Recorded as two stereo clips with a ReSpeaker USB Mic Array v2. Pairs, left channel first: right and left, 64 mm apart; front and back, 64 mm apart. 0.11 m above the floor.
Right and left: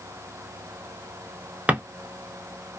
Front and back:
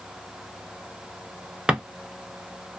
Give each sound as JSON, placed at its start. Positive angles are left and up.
{"t": 1.7, "sound": "a drawer", "azimuth_deg": 120, "distance_m": 0.6}